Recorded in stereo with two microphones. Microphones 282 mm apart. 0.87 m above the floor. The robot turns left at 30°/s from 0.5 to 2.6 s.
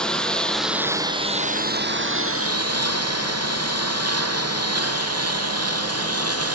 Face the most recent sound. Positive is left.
turn(degrees=-60)  # may be behind; listen again after turning